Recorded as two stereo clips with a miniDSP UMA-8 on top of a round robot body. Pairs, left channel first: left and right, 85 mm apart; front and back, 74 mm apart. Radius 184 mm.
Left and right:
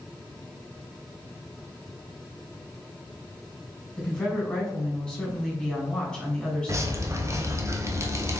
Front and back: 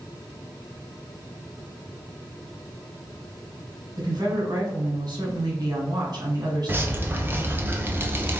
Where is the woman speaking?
165° left, 2.5 m.